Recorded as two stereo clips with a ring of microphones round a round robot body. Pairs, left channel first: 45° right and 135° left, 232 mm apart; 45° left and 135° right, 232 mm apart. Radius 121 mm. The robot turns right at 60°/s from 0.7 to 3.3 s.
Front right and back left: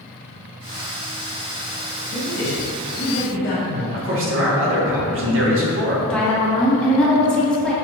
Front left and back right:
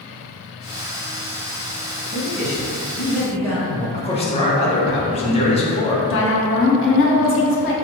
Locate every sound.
2.1 s a man speaking: 100° right, 1.6 m; by 3.8 s 30° right, 1.6 m
3.9 s a man speaking: 110° left, 0.9 m
6.1 s a woman speaking: 40° left, 0.9 m